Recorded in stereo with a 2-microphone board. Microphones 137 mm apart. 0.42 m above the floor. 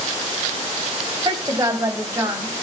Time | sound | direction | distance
1.2 | a woman speaking | 30° right (ahead or behind) | 2.5 m